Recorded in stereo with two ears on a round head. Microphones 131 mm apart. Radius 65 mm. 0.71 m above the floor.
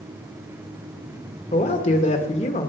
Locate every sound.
1.5 s a man speaking: 50° left (ahead or behind), 1.7 m